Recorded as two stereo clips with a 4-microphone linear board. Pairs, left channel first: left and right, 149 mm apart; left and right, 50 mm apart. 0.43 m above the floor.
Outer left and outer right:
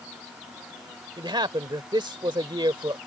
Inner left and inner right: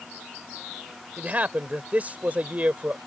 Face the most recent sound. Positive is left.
turn(degrees=-35)  # may be behind; listen again after turning